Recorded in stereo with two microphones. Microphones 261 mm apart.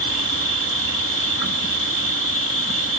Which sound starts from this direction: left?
An insect, at 0.0 s.